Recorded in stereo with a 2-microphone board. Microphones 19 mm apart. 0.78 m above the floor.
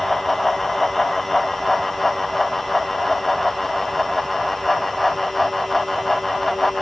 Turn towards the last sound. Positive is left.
No sound to turn to.